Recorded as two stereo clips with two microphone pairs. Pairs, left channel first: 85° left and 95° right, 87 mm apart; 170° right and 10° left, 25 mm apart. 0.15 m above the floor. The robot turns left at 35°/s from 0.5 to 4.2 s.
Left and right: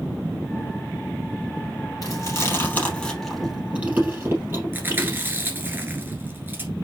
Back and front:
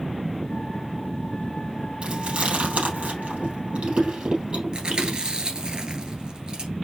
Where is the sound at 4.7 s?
35° right, 1.4 m.